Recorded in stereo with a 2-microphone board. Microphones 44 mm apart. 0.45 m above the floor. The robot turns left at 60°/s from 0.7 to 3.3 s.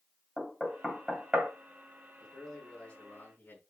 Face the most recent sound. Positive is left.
turn(degrees=125)